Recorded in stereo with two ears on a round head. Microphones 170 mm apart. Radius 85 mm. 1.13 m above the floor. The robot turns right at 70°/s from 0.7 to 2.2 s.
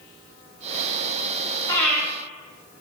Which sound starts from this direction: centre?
Breathing, at 1.7 s.